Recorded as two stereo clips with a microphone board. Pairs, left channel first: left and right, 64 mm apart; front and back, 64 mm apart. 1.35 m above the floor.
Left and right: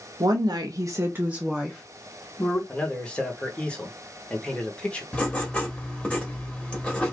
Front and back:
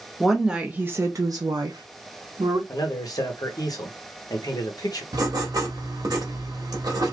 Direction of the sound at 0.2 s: 90° right.